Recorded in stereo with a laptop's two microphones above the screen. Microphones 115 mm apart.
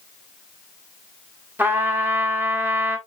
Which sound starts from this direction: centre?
A trumpet, at 1.6 s.